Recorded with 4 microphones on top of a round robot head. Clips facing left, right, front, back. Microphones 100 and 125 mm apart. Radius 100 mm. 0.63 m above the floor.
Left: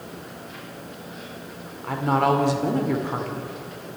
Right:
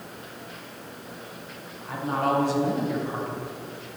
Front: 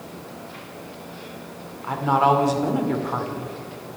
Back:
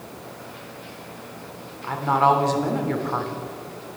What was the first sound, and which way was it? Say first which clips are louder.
A woman speaking: left 5 dB, even; 80° left.